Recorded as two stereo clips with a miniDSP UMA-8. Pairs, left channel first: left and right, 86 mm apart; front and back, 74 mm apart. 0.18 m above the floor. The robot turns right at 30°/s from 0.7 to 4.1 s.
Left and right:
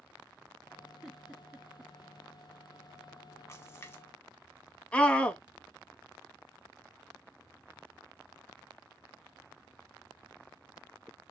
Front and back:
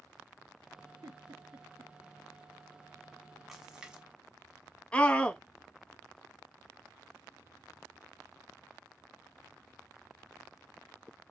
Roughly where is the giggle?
Behind.